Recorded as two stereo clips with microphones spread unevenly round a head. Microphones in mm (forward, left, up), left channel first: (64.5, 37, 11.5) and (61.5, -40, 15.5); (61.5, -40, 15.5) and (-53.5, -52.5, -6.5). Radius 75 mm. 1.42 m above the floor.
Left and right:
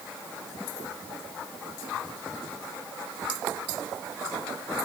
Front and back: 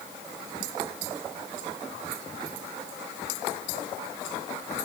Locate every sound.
Only background noise.